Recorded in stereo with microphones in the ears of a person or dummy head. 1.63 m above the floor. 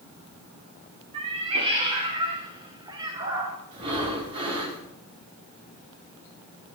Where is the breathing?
30° right (ahead or behind), 4 m.